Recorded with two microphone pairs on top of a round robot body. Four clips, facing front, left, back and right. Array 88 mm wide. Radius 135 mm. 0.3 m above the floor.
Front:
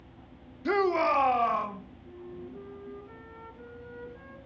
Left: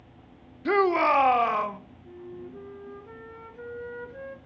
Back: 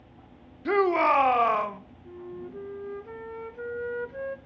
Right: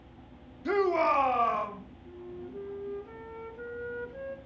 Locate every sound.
0.7 s a shout: 90° left, 0.9 m; by 1.8 s 145° left, 1.4 m
2.0 s a flute: 175° left, 1.2 m